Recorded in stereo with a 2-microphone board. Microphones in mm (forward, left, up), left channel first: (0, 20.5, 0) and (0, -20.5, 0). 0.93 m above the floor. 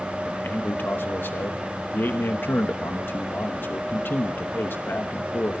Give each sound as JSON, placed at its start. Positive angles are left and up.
{"t": 0.2, "sound": "a man speaking", "side_deg": 60, "distance_m": 1.1}